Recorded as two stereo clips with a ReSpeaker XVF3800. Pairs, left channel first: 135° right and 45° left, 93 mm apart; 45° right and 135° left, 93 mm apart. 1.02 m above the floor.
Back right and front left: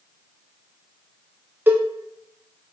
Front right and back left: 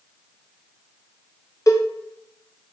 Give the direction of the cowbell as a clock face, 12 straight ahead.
12 o'clock.